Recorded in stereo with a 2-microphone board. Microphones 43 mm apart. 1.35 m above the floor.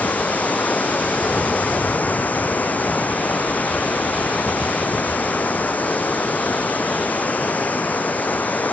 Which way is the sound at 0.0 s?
40° left (ahead or behind).